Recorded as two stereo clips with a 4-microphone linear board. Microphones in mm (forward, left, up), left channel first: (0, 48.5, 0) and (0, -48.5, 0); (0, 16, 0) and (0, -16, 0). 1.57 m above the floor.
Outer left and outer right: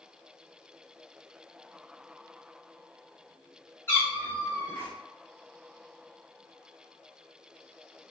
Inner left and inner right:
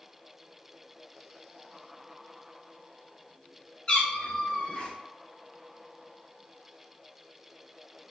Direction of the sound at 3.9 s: 20° left (ahead or behind).